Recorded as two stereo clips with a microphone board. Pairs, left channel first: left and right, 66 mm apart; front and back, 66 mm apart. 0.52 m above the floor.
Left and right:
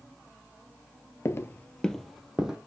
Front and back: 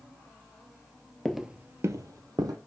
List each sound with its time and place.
1.2 s footsteps: 80° left, 0.6 m; by 2.6 s 170° right, 1.3 m